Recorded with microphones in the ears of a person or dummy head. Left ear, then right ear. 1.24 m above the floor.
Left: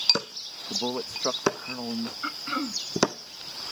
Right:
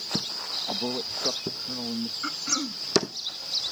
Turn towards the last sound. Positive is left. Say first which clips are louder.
# right 1 dB
turn(degrees=20)  # may be behind; listen again after turning